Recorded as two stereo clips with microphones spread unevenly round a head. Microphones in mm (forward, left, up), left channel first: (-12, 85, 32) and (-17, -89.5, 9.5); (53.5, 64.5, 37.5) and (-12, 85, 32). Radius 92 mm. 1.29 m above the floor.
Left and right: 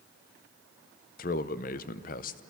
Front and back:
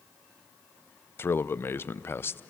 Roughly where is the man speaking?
Ahead left.